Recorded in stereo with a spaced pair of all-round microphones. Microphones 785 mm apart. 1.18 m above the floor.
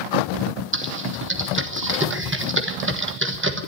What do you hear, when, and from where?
0.7 s typing on a keyboard: 15° right (ahead or behind), 1.3 m